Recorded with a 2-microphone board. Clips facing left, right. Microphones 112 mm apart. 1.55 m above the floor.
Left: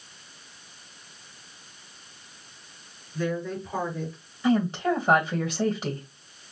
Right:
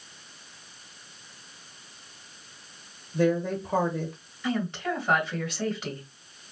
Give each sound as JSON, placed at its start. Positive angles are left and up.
{"t": 3.1, "sound": "a woman speaking", "side_deg": -80, "distance_m": 2.5}
{"t": 4.4, "sound": "a woman speaking", "side_deg": 35, "distance_m": 1.8}